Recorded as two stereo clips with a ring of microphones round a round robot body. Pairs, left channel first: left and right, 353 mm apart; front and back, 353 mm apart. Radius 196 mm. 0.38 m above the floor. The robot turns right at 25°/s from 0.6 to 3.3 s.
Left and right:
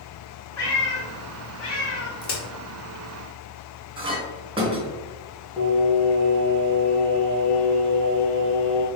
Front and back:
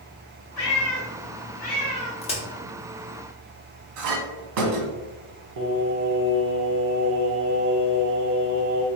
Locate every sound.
0.6 s a cat meowing: 45° left, 1.6 m; by 2.1 s 80° left, 1.6 m
2.2 s a crack: 55° left, 1.2 m; by 2.4 s 60° left, 1.2 m
4.0 s a clink: 165° right, 1.2 m
5.6 s singing: straight behind, 0.9 m